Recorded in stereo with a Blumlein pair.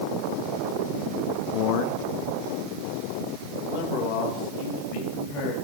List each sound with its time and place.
1.5 s a man speaking: 45° left, 1.0 m